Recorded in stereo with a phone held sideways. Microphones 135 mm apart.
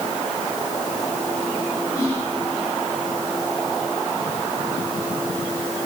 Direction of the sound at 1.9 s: 30° left (ahead or behind).